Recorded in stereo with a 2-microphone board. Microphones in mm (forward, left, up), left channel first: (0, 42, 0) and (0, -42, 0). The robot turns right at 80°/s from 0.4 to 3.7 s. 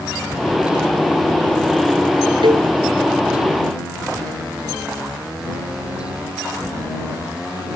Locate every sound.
2.4 s a cowbell: 80° right; by 2.7 s 55° right (ahead or behind)